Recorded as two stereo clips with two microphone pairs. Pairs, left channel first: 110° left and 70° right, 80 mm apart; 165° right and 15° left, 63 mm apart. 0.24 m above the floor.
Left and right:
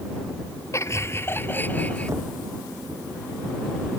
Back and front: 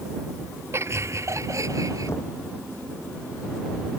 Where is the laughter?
60° left; by 2.1 s 40° left.